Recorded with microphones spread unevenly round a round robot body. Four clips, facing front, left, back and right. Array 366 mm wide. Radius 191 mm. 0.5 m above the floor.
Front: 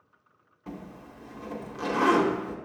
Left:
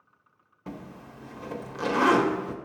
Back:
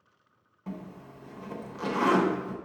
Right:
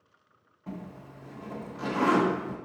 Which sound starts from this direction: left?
A zipper, at 0.7 s.